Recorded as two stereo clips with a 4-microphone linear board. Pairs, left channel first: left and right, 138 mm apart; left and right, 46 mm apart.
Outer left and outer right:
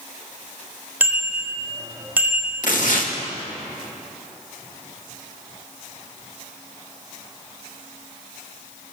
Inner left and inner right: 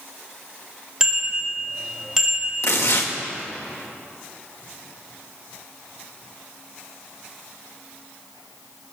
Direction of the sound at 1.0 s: 15° right (ahead or behind).